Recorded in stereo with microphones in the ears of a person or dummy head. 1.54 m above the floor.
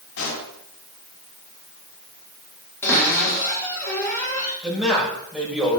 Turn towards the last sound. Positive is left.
turn(degrees=0)  # may be behind; listen again after turning